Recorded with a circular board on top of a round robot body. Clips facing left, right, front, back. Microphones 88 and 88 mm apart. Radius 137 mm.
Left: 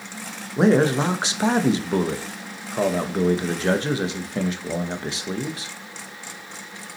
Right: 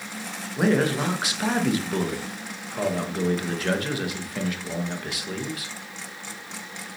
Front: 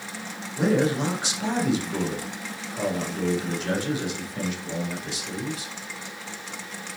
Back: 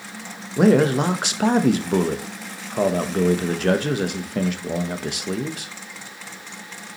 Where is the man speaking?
150° left, 1.1 m.